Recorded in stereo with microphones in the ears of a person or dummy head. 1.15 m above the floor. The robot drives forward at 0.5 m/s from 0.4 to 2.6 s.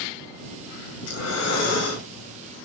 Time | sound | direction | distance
1.0 | breathing | 80° left | 1.4 m